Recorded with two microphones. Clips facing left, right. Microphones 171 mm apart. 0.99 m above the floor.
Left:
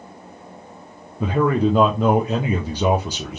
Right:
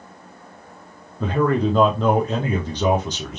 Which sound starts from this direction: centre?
A man speaking, at 1.2 s.